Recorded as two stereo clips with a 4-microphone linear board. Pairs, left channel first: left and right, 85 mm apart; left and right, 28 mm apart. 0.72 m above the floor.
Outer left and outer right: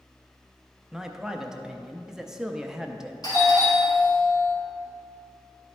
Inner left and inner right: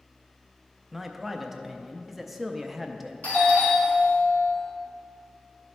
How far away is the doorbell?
About 2.5 m.